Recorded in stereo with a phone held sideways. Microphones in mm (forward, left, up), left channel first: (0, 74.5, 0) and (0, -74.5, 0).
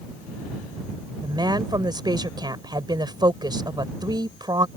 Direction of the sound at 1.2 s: 30° right (ahead or behind).